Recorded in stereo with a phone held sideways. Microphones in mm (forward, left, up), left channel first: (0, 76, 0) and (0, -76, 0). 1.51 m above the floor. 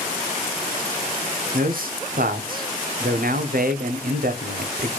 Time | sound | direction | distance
1.5 | a man speaking | 70° right (ahead or behind) | 0.6 m